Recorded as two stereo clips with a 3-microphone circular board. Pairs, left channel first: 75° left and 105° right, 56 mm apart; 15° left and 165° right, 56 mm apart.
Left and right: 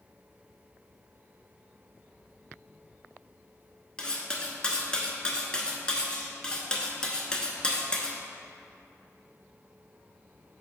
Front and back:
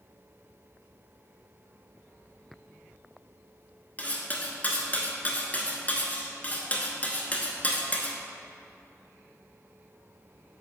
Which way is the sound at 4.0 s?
20° left.